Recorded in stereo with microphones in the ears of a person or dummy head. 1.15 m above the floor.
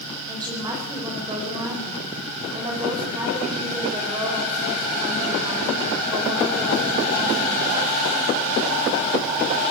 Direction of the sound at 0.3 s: 15° right (ahead or behind).